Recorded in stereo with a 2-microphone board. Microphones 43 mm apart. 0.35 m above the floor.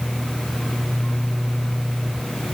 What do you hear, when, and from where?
Only background noise.